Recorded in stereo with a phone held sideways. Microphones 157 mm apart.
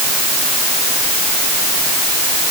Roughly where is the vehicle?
No vehicle in this recording.